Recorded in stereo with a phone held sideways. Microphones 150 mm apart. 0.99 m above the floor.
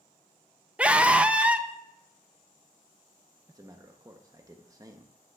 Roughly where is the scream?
Centre.